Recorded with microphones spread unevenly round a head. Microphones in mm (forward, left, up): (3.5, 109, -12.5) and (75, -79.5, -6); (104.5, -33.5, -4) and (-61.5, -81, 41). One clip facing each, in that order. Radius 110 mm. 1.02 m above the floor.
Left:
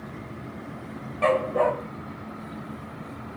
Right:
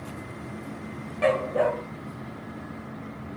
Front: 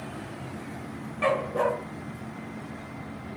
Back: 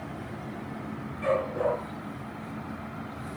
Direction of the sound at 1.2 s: 5° left.